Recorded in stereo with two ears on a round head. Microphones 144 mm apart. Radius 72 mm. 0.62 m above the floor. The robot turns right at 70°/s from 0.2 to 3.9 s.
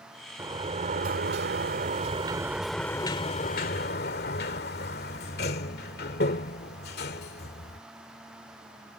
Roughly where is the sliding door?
Behind.